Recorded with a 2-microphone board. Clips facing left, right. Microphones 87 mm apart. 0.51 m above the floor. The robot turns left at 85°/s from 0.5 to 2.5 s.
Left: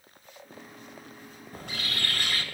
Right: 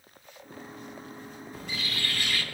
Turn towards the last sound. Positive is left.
turn(degrees=40)